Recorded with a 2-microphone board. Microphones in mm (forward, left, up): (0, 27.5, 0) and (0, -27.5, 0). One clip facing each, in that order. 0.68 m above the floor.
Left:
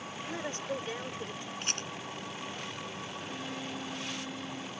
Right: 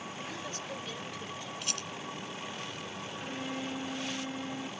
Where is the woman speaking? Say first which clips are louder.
Left 8 dB; 30° left (ahead or behind).